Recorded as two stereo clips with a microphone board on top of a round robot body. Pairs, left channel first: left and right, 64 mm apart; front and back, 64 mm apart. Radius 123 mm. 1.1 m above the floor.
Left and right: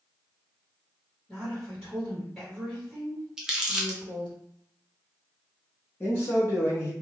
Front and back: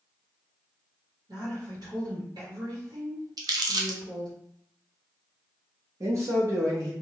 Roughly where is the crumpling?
Behind.